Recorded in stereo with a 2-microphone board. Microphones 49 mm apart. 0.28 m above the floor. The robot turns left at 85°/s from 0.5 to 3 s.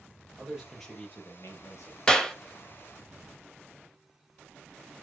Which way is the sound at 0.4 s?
160° right.